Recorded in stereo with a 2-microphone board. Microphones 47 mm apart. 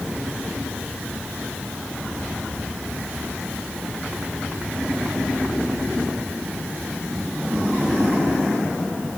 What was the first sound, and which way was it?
Only background noise.